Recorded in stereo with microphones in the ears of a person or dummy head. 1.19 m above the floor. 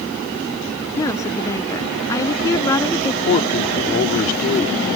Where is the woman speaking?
20° left (ahead or behind).